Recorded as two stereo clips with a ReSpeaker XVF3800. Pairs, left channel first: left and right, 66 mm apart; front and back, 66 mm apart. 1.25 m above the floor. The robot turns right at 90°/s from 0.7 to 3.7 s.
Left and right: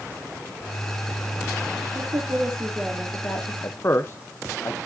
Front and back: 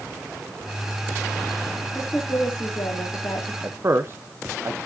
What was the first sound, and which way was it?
A woman speaking, 95° right.